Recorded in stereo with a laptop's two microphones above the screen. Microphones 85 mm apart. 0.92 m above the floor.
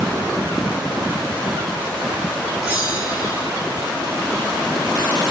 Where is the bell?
15° right (ahead or behind), 1.8 m.